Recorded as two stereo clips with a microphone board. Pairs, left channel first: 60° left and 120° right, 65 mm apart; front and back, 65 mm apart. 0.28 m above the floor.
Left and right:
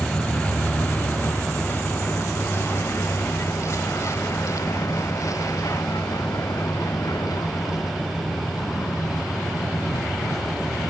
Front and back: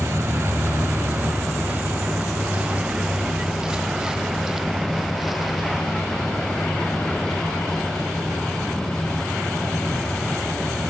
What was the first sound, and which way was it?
A vehicle, 130° left.